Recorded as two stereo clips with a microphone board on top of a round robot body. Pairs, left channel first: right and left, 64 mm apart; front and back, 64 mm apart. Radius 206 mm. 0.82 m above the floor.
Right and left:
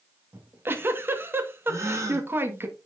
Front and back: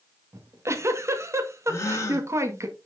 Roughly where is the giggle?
Behind left.